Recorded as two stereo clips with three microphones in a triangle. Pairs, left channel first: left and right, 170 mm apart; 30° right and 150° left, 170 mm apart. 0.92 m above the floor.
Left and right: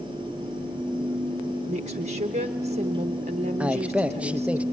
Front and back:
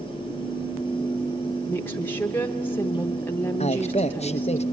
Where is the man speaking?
10° right, 0.6 m.